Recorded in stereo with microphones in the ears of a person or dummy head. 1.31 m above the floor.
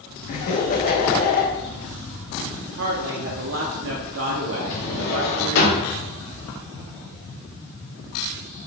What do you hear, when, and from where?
0.3 s laughter: 40° left (ahead or behind), 0.9 m
2.8 s a woman speaking: 65° right (ahead or behind), 0.5 m
4.7 s a drawer: 65° left (ahead or behind), 1.8 m